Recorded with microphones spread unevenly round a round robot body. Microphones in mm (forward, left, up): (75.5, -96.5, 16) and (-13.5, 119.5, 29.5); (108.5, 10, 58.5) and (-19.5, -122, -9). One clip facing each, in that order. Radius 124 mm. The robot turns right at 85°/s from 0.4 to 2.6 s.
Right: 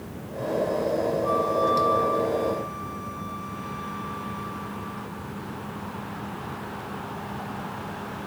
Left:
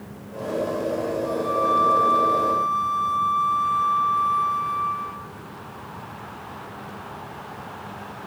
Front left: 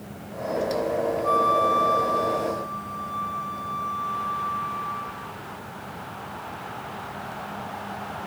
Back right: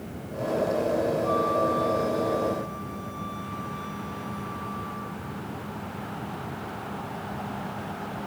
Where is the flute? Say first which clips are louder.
Even, front left 1 dB; 10° left, 0.8 m; by 5.3 s 125° left, 0.8 m.